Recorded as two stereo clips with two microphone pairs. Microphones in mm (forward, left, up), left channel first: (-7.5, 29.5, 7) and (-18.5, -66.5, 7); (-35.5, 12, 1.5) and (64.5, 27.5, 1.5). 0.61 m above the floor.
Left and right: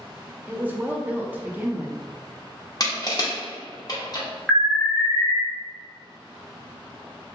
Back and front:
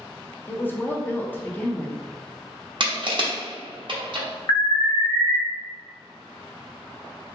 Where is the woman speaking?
130° right, 0.5 m.